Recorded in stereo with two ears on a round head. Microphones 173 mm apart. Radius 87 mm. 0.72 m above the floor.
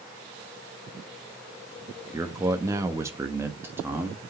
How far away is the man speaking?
About 0.9 m.